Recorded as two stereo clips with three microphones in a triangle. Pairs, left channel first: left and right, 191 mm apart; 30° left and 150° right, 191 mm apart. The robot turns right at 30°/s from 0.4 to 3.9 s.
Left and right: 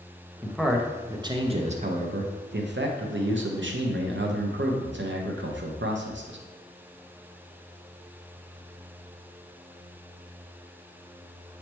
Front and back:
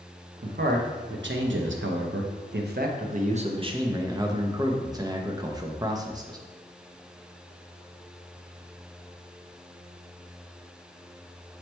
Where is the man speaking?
175° left, 0.6 m; by 6.4 s 80° right, 0.6 m.